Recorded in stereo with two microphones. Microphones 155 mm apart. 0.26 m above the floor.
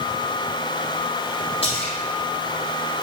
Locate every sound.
1.6 s a splash: 40° left (ahead or behind), 3.5 m